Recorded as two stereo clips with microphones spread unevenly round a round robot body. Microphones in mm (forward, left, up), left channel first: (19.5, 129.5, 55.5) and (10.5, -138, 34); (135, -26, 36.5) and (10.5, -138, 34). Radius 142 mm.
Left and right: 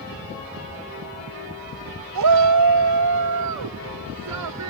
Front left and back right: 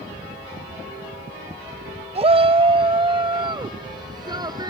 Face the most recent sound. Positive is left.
turn(degrees=-75)